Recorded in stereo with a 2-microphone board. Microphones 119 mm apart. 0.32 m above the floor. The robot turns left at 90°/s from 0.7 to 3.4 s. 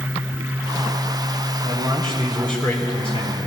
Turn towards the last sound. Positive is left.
turn(degrees=95)